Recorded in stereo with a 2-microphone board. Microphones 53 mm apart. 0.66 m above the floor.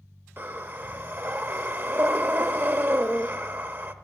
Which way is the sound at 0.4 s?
45° right (ahead or behind).